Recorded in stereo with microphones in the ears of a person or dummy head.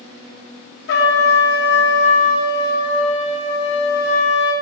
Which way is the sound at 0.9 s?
60° left (ahead or behind).